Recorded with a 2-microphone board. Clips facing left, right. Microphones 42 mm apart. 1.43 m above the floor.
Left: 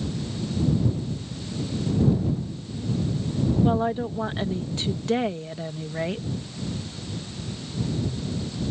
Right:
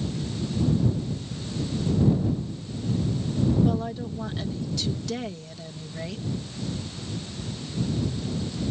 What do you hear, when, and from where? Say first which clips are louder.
3.6 s a woman speaking: left 4 dB; 30° left (ahead or behind)